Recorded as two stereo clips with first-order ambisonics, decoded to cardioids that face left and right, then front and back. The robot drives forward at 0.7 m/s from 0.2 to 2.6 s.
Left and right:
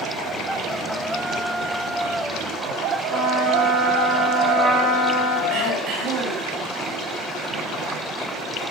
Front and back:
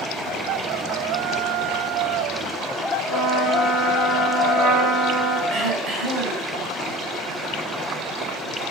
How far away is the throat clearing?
About 6 m.